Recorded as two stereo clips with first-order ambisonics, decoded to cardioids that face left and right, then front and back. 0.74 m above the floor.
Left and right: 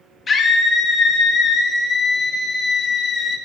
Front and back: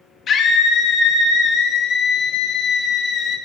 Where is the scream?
35° left, 0.7 m.